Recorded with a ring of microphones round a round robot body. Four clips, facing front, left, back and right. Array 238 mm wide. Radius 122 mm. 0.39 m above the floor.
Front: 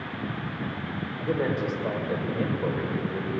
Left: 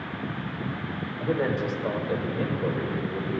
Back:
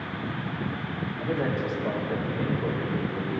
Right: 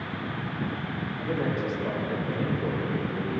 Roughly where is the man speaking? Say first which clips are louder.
Left 3 dB, front 2 dB; left.